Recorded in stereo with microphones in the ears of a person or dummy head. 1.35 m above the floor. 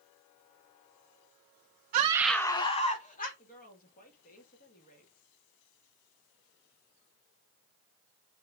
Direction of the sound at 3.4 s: 45° left (ahead or behind).